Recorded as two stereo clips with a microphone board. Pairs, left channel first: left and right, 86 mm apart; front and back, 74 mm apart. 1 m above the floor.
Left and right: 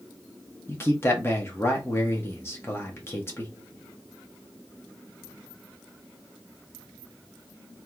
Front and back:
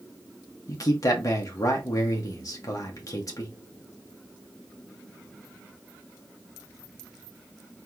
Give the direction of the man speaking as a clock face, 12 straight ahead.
11 o'clock.